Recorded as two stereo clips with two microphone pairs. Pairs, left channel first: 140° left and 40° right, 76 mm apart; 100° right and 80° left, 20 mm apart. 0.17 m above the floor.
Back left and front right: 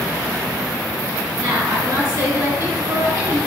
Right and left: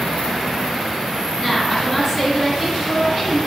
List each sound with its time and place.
1.4 s a woman speaking: 15° right, 2.0 m